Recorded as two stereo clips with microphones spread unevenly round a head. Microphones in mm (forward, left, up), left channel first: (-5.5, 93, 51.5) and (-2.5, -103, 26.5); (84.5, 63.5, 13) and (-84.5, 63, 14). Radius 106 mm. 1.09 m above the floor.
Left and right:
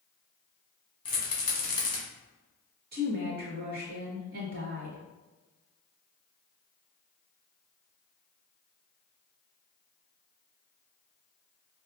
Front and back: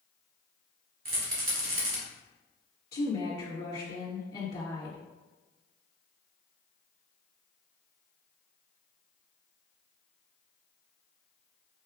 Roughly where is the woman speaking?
Ahead right.